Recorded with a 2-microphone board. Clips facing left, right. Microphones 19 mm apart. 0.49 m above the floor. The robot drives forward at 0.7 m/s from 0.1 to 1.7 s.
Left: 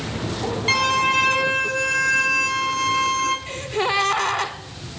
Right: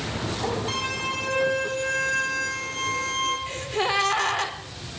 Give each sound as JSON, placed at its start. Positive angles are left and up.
{"t": 0.7, "sound": "a violin", "side_deg": 40, "distance_m": 1.1}
{"t": 3.5, "sound": "a gasp", "side_deg": 0, "distance_m": 0.9}